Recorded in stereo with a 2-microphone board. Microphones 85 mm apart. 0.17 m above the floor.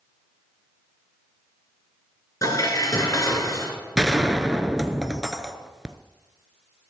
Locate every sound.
2.4 s dishes clattering: 45° left (ahead or behind), 1.5 m
4.0 s a gunshot: 5° right (ahead or behind), 0.6 m